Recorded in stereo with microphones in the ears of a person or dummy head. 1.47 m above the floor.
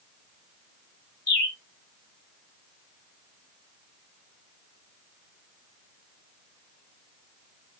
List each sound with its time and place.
1.3 s a bird: 45° left (ahead or behind), 1.3 m